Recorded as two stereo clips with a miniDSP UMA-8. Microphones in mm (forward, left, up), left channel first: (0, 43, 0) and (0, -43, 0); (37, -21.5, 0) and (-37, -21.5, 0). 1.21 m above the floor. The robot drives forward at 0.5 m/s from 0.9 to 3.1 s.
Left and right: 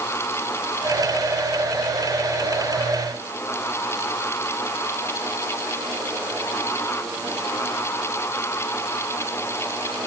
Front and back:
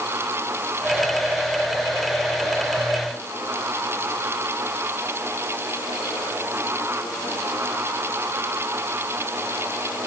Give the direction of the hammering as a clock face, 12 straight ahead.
I don't hear hammering.